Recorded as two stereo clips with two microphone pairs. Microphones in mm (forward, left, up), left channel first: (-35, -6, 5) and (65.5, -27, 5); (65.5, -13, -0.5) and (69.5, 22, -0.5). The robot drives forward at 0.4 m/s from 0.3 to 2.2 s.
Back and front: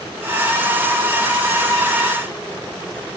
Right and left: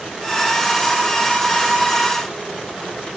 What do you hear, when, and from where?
Only background noise.